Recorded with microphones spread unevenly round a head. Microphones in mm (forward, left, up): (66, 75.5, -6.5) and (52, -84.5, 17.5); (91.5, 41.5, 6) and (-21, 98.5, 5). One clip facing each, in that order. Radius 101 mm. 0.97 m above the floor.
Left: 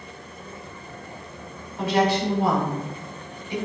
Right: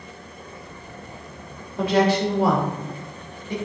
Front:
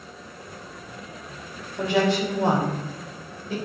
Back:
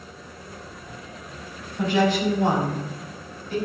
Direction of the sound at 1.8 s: 90° right.